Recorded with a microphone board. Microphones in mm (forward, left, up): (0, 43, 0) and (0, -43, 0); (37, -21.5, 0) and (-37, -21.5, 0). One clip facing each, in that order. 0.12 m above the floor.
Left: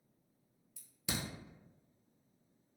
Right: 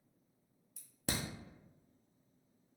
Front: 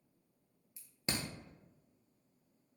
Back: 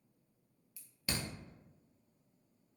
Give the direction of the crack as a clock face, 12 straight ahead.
2 o'clock.